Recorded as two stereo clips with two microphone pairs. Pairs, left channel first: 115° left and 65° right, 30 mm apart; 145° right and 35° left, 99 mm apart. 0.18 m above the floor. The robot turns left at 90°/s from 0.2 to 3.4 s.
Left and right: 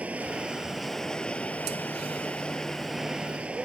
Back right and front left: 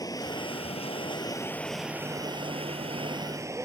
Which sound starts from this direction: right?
Running water, at 0.0 s.